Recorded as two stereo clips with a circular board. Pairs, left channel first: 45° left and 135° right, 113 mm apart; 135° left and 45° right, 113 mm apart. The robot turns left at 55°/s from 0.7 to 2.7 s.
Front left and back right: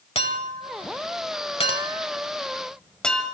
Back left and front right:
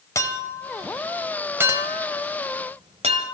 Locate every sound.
0.1 s a clink: 70° left, 1.4 m; by 3.2 s 40° right, 1.4 m